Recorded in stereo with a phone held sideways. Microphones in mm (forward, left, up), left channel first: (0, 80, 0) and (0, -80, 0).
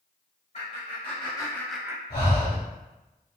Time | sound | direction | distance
0.5 | laughter | 45° left (ahead or behind) | 1.5 m
2.1 | breathing | 45° left (ahead or behind) | 1.6 m